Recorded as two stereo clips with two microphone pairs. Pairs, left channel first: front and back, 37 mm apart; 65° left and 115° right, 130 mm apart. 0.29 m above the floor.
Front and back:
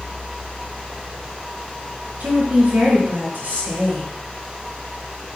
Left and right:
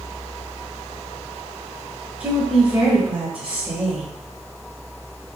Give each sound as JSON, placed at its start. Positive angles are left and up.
{"t": 2.2, "sound": "a woman speaking", "azimuth_deg": 165, "distance_m": 3.5}